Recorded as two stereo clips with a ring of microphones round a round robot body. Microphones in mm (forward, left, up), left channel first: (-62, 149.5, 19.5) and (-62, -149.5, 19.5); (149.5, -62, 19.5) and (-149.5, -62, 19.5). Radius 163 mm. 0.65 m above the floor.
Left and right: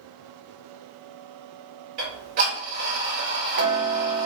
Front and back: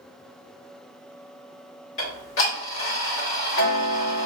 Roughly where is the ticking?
Ahead right.